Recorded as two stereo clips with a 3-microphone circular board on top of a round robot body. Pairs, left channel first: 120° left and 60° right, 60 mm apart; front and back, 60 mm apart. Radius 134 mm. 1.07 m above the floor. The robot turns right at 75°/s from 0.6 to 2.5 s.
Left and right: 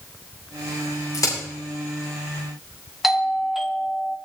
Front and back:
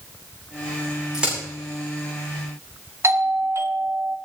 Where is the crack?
100° left, 9 m; by 1.4 s 115° left, 9 m.